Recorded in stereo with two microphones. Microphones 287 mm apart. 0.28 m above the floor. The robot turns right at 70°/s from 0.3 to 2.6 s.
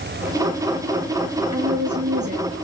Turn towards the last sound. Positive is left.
turn(degrees=-15)